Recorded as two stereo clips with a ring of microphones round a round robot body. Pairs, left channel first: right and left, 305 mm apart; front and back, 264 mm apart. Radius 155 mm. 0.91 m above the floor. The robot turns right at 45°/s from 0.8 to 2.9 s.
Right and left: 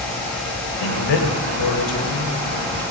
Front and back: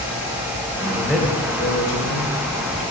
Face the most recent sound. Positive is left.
turn(degrees=-10)